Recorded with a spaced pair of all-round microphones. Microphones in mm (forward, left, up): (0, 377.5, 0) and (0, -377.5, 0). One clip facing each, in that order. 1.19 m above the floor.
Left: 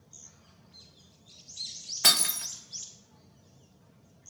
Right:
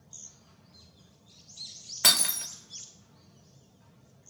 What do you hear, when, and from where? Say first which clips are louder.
2.0 s breaking glass: even; 5° right (ahead or behind), 0.6 m